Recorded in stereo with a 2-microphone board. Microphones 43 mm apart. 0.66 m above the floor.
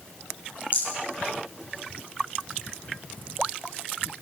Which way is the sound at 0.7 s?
55° left (ahead or behind).